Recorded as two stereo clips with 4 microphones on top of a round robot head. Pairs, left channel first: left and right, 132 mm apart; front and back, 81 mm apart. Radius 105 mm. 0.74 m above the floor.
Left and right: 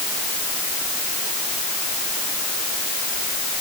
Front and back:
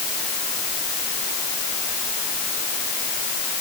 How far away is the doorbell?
I don't hear a doorbell.